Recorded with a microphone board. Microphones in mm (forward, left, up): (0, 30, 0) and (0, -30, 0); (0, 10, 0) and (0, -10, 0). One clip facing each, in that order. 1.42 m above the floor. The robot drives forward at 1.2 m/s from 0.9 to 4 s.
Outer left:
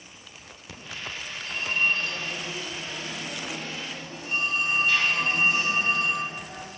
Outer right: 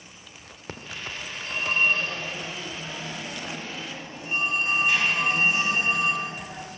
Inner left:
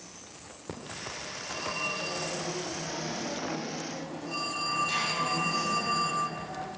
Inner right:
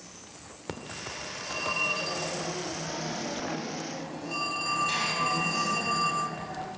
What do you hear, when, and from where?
0.7 s a phone ringing: 50° right (ahead or behind), 2.5 m; by 6.7 s 20° right (ahead or behind), 6 m